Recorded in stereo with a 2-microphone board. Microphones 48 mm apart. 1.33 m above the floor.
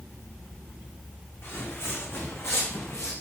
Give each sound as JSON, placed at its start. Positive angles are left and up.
{"t": 1.4, "sound": "footsteps", "side_deg": 55, "distance_m": 6.5}